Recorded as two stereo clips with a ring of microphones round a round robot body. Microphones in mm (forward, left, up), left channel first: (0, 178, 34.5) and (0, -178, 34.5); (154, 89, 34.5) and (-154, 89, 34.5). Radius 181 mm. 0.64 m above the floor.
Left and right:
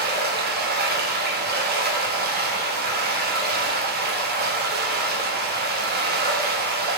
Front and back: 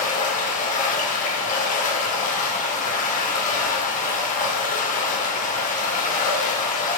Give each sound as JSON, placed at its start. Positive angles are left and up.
{"t": 0.0, "sound": "running water", "azimuth_deg": -50, "distance_m": 1.0}